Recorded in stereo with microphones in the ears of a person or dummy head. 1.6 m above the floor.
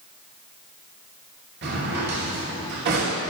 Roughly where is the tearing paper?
I don't hear tearing paper.